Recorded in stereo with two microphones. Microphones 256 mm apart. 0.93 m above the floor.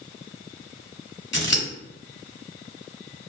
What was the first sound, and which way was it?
Scissors, 45° left (ahead or behind).